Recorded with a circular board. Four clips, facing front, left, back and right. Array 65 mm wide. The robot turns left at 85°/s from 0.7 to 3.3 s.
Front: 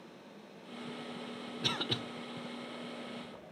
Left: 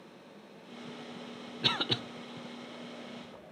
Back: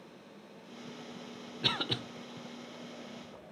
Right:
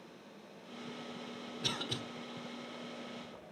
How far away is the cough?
About 1.0 m.